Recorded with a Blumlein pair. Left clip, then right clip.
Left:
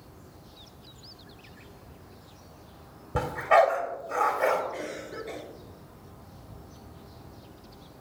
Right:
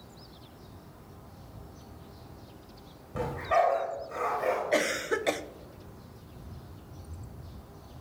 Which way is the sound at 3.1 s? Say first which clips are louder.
Left 5 dB; 20° left.